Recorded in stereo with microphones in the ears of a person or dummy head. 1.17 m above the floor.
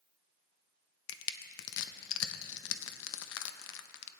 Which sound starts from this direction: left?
Crushing, at 1.1 s.